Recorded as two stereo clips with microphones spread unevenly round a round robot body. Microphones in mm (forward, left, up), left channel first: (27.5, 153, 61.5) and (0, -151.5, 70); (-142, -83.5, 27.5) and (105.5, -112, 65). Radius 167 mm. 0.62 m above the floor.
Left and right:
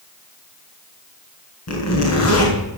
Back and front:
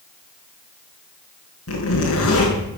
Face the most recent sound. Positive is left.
turn(degrees=125)